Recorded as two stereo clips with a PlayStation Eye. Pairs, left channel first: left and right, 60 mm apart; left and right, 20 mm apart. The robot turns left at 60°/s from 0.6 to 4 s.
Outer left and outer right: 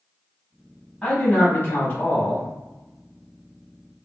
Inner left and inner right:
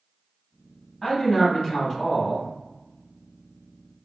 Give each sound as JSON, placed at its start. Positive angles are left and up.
{"t": 1.0, "sound": "a man speaking", "azimuth_deg": 155, "distance_m": 1.3}